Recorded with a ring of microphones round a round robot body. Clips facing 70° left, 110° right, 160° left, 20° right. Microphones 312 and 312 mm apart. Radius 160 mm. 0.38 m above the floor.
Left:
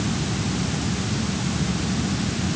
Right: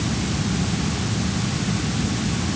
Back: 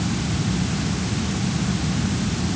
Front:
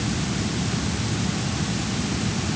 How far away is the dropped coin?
No dropped coin in this recording.